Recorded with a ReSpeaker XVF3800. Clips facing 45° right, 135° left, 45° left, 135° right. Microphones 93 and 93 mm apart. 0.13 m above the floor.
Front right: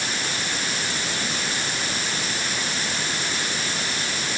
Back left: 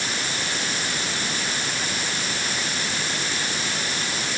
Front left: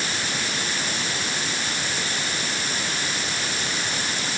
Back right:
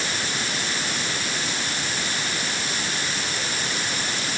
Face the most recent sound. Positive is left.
No sound to turn to.